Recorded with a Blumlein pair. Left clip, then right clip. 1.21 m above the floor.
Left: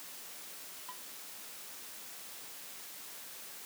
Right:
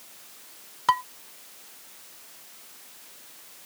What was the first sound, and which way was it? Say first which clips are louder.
Dishes clattering: right 29 dB; 45° right.